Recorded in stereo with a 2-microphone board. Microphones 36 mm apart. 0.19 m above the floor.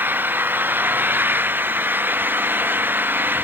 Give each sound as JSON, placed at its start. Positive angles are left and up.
{"t": 0.0, "sound": "an engine running", "side_deg": -85}